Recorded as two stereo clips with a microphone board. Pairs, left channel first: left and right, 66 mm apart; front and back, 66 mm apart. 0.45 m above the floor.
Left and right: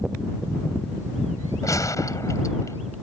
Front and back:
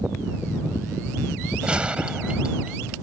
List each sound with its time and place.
1.6 s a gunshot: 110° left